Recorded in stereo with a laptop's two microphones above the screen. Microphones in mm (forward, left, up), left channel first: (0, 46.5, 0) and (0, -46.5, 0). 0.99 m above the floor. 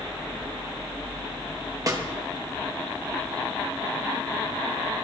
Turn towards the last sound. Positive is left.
turn(degrees=-35)  # may be behind; listen again after turning